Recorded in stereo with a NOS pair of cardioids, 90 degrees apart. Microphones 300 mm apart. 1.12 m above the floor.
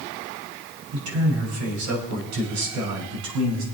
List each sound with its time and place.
0.9 s a man speaking: 65° right, 5.5 m; by 3.6 s 80° right, 6.5 m